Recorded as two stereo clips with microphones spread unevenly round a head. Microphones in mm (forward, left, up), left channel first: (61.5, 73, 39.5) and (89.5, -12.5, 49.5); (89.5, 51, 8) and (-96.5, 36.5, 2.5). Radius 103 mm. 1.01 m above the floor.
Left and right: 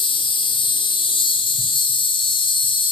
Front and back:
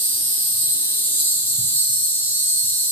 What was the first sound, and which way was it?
An insect, 85° left.